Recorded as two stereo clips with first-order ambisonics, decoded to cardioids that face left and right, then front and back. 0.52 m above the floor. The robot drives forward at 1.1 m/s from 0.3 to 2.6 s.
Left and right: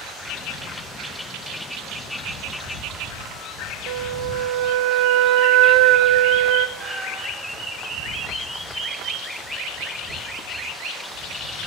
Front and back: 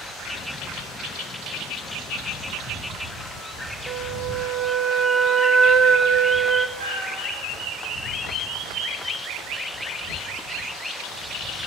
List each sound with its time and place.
3.9 s a flute: 105° right, 0.9 m
6.8 s a cat meowing: 160° right, 3.5 m